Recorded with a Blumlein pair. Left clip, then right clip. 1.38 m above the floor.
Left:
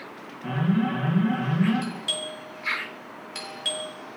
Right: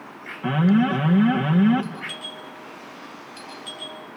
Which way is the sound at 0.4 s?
25° right.